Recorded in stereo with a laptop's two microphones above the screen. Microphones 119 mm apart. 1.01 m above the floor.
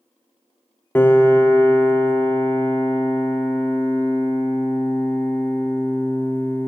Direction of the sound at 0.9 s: 15° left (ahead or behind).